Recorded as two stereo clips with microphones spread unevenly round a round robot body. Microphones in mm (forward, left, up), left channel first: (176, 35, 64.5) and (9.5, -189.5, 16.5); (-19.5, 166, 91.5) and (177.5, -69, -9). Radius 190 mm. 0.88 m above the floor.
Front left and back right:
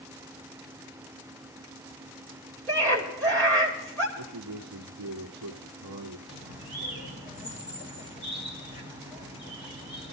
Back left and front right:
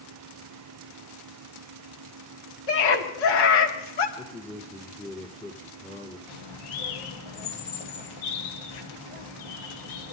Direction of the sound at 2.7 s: 140° left.